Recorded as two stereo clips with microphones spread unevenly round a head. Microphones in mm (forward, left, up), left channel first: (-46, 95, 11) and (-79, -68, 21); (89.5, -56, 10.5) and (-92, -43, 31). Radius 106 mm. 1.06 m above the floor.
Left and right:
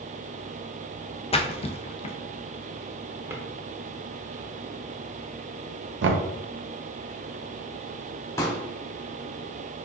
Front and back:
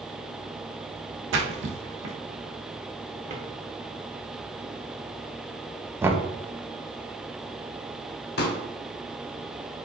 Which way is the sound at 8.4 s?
5° left.